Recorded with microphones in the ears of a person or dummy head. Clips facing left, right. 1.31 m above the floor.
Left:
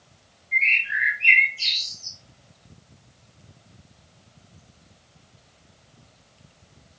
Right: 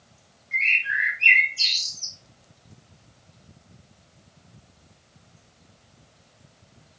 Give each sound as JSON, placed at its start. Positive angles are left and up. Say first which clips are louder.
{"t": 0.5, "sound": "a bird", "louder": "left 1 dB", "side_deg": -70, "distance_m": 3.0}